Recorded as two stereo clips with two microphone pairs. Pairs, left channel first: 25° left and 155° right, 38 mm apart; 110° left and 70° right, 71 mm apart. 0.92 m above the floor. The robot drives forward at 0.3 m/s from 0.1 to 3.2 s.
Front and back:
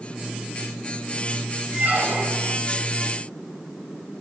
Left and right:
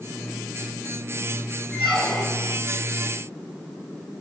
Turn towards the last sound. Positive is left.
turn(degrees=-175)